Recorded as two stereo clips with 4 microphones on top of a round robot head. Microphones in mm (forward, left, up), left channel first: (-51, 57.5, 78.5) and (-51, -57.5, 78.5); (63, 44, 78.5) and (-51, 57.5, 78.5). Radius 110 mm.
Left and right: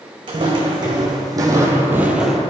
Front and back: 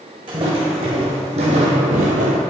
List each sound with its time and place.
0.3 s footsteps: 135° right, 2.5 m; by 2.4 s 175° left, 0.8 m